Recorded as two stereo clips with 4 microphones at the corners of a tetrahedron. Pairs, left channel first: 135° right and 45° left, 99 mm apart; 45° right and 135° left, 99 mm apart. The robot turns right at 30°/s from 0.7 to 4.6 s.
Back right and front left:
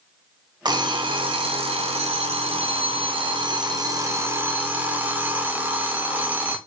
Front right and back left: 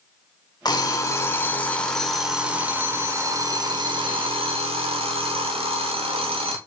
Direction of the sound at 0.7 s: Straight ahead.